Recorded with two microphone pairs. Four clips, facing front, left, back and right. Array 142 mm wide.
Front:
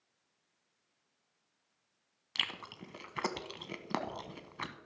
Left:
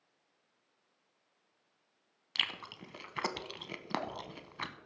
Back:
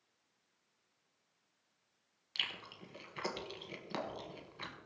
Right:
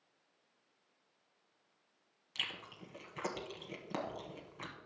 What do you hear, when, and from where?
2.4 s chewing: 40° left, 0.9 m